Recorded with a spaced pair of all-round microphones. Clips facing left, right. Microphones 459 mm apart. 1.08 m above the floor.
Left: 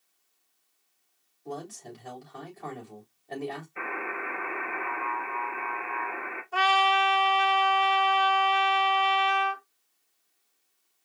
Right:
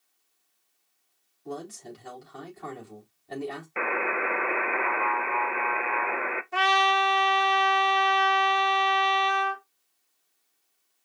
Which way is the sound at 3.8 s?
80° right.